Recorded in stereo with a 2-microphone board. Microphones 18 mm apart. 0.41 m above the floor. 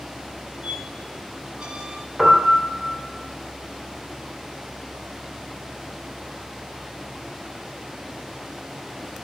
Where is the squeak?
80° right, 0.9 m.